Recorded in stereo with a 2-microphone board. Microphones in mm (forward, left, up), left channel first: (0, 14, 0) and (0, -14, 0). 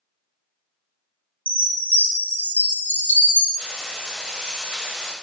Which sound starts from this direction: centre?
Frying, at 3.6 s.